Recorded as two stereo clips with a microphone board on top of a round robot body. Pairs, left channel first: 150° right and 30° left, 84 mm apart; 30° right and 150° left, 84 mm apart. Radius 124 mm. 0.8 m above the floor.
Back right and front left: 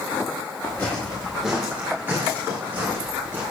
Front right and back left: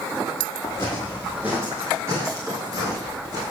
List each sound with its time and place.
0.6 s footsteps: 85° right, 0.9 m; by 3.4 s 95° left, 1.8 m